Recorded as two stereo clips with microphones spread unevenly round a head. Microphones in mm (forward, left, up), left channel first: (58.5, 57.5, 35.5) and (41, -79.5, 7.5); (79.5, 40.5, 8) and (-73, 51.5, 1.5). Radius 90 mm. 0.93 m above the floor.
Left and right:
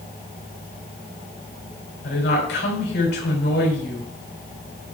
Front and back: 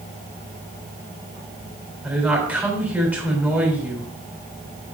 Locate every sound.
2.0 s a woman speaking: 95° left, 3.5 m